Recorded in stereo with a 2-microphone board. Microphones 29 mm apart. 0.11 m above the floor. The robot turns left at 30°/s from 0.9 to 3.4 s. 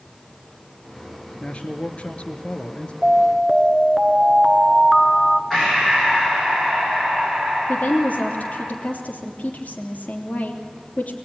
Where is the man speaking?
110° left, 1.4 m; by 2.9 s 65° left, 1.4 m.